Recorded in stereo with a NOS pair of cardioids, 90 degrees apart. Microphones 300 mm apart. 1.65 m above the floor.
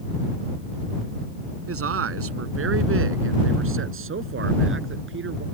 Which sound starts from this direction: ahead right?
A man speaking, at 1.7 s.